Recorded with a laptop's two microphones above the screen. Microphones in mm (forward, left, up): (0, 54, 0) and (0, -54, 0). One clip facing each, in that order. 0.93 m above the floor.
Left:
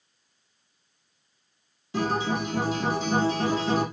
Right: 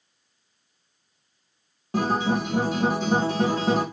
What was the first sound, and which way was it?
A guitar, 50° right (ahead or behind).